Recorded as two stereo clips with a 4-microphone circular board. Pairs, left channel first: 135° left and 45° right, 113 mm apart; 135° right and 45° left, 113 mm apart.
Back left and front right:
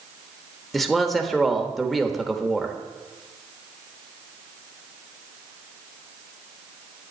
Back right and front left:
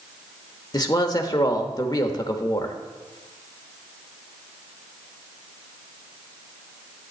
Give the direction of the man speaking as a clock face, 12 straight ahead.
5 o'clock.